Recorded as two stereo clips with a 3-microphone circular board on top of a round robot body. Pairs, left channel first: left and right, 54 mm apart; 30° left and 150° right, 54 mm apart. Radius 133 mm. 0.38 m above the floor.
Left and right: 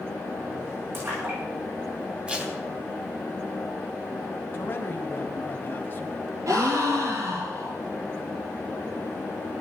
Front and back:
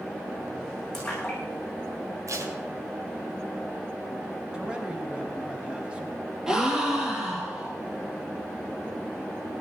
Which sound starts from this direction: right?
A gasp, at 6.5 s.